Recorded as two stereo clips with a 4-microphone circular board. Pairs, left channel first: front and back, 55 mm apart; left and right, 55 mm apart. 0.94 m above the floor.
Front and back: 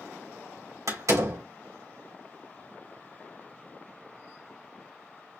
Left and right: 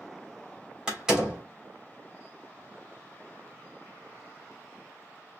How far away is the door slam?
About 3 m.